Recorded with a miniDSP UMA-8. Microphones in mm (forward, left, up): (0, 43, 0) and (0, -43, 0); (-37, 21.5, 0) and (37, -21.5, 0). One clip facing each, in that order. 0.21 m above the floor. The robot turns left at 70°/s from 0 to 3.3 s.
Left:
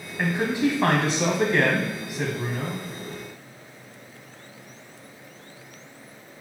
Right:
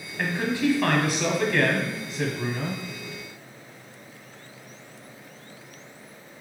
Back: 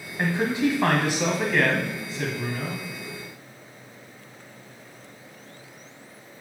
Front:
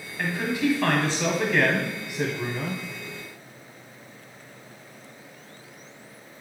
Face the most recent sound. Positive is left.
turn(degrees=-60)